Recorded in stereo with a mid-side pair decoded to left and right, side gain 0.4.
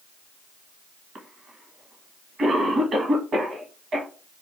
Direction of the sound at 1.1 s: 55° right.